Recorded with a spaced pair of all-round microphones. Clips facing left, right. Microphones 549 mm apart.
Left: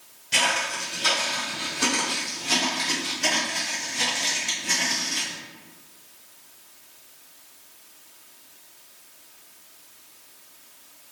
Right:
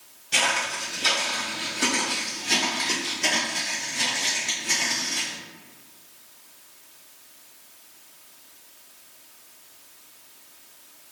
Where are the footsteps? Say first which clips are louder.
Even; 20° left (ahead or behind), 1.2 m; by 5.4 s 30° left (ahead or behind), 4 m.